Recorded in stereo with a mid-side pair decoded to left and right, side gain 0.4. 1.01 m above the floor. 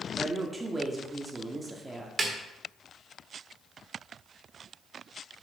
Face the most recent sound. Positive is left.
turn(degrees=-40)